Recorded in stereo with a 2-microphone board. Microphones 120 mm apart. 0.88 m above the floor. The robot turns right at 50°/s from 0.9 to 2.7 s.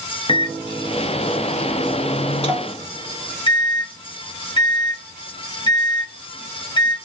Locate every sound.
0.3 s a microwave: 50° left, 0.7 m; by 7.0 s 140° left, 0.7 m